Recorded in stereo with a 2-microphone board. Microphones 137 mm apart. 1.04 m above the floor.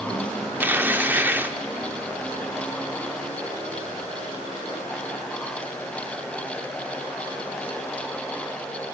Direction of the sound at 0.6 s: 15° right (ahead or behind).